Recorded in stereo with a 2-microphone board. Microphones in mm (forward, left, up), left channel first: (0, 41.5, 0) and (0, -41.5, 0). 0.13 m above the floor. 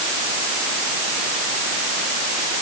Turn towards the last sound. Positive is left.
No sound to turn to.